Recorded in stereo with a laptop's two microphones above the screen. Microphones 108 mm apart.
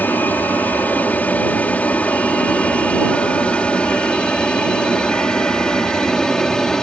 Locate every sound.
0.0 s an aircraft: 15° left (ahead or behind); by 6.8 s 5° left (ahead or behind)